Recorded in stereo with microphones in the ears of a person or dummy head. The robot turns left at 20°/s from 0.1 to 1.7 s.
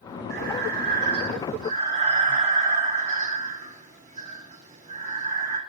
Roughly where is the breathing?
Right.